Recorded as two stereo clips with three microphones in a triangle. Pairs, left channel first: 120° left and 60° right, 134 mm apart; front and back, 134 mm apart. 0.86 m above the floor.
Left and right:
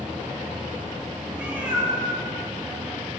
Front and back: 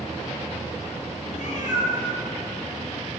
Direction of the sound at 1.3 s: 15° left.